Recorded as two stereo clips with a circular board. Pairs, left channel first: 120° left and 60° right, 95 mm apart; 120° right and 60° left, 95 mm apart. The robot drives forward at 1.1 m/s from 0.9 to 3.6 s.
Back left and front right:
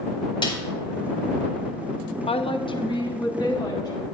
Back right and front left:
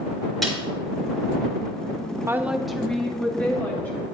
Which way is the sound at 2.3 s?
120° left.